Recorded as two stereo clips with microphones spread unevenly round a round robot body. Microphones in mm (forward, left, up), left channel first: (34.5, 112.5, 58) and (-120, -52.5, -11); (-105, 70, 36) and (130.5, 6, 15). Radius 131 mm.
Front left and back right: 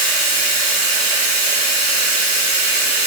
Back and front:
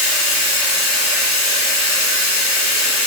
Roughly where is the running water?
Right.